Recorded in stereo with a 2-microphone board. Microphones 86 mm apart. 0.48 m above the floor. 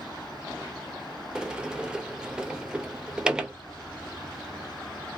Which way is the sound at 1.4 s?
10° right (ahead or behind).